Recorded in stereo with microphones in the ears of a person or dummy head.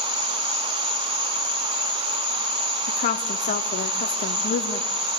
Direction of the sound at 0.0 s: 60° right (ahead or behind).